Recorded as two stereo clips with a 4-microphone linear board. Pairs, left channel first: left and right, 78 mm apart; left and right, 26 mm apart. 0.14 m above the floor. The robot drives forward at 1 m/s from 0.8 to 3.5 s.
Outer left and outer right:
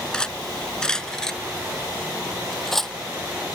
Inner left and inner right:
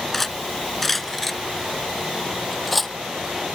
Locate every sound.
0.1 s cutlery clinking: 10° left (ahead or behind); by 2.9 s 5° left (ahead or behind)